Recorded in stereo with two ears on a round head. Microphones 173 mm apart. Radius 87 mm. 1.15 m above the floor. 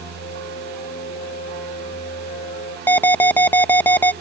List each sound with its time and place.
0.2 s a flute: 40° left (ahead or behind)
2.9 s an alarm: 10° left (ahead or behind)